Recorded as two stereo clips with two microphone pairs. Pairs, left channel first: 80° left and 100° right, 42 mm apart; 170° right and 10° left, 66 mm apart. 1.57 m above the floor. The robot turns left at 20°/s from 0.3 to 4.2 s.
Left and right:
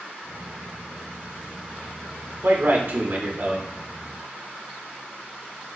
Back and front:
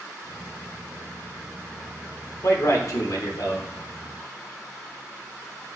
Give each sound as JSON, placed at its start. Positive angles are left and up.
{"t": 2.4, "sound": "a man speaking", "azimuth_deg": -130, "distance_m": 0.7}